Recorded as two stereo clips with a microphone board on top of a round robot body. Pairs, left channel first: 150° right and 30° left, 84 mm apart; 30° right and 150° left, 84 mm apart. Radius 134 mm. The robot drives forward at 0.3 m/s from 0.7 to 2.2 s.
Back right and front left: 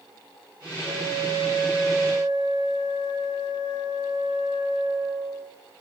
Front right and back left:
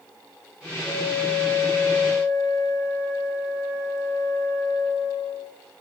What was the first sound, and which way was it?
A flute, 25° left.